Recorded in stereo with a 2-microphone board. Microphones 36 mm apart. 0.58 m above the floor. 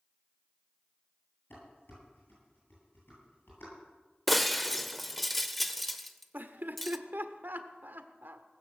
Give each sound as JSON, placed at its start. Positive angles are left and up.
{"t": 1.5, "sound": "dishes clattering", "side_deg": 70, "distance_m": 9.5}
{"t": 4.3, "sound": "breaking glass", "side_deg": 5, "distance_m": 0.7}
{"t": 6.3, "sound": "laughter", "side_deg": -60, "distance_m": 1.3}